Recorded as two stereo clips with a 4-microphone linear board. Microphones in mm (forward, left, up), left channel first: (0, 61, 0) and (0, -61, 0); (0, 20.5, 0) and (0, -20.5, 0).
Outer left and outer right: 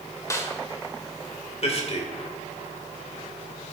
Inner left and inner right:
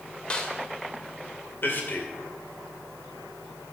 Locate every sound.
0.3 s a snare drum: 25° left (ahead or behind), 1.7 m
1.6 s a man speaking: 55° left (ahead or behind), 2.5 m